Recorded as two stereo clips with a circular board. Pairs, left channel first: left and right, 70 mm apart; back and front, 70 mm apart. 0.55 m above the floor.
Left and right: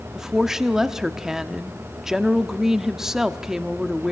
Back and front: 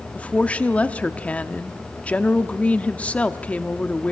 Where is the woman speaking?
160° right, 0.8 m.